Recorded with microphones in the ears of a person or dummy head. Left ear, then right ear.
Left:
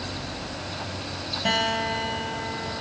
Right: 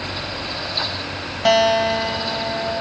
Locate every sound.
1.4 s a guitar: 35° right (ahead or behind), 0.8 m